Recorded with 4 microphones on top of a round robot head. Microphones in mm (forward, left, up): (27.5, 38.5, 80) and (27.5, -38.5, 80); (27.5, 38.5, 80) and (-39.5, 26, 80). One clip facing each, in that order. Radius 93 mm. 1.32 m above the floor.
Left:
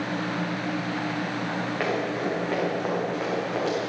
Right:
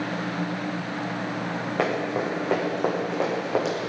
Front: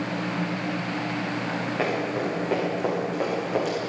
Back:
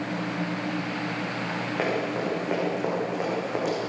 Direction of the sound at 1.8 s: 90° right.